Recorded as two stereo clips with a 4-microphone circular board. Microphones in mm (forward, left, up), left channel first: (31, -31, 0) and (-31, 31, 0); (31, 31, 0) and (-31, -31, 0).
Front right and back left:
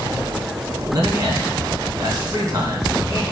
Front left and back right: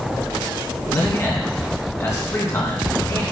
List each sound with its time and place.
0.9 s a man speaking: 95° left, 3 m